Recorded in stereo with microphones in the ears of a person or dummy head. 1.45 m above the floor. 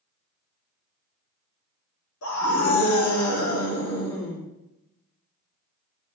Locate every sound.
2.2 s a scream: 80° left, 3 m